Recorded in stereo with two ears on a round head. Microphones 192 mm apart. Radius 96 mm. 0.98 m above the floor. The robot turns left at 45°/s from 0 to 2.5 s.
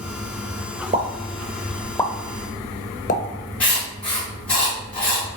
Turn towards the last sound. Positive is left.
turn(degrees=5)  # may be behind; listen again after turning